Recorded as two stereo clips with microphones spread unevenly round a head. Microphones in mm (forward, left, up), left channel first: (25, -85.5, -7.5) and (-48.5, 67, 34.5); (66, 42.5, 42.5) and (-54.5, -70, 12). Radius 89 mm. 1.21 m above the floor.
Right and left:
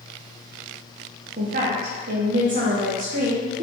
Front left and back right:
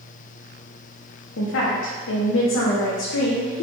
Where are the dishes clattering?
I don't hear dishes clattering.